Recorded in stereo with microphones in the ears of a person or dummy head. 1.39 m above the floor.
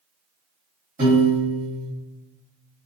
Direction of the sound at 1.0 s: 20° right (ahead or behind).